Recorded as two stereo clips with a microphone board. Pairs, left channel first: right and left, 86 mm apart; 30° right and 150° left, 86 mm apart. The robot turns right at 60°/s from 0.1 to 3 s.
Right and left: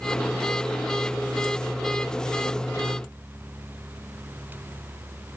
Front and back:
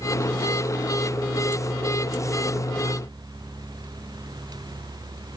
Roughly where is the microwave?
I don't hear a microwave.